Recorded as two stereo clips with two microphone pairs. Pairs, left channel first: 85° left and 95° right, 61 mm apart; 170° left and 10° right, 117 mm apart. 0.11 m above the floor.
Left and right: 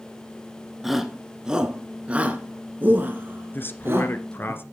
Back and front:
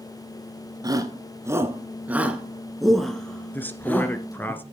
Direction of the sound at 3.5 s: 110° left.